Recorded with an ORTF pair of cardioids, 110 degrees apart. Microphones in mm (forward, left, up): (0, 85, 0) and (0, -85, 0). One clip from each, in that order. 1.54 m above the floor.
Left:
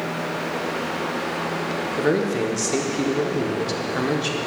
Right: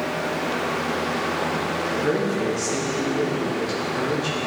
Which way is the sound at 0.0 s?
40° right.